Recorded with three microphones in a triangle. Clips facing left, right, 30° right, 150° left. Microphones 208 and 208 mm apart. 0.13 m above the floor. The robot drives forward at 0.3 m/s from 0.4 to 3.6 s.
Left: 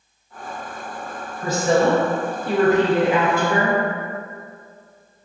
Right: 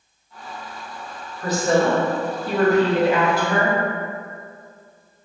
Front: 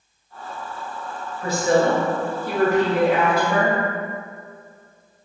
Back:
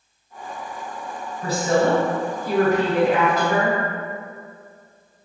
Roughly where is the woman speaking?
Behind left.